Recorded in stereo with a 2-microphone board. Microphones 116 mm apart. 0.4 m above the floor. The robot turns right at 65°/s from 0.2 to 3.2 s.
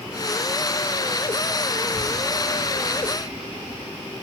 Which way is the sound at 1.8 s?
20° left (ahead or behind).